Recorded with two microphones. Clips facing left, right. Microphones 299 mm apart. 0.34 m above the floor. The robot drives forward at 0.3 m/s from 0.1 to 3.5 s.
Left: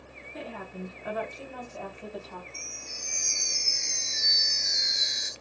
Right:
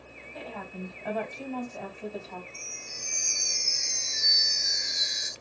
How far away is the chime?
About 1.3 m.